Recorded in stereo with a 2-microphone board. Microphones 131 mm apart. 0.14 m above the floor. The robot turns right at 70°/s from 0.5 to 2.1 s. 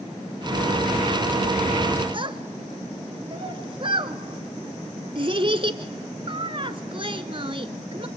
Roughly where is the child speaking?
Right.